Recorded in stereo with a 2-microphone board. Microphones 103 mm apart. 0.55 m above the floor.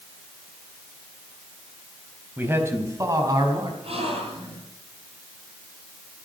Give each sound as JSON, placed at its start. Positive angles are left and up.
{"t": 2.4, "sound": "a man speaking", "side_deg": -20, "distance_m": 3.0}
{"t": 3.8, "sound": "a gasp", "side_deg": -65, "distance_m": 8.5}